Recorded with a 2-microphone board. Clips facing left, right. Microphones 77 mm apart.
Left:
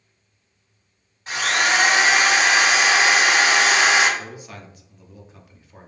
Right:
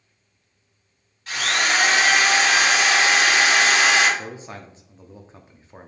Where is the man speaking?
30° right (ahead or behind), 0.6 m.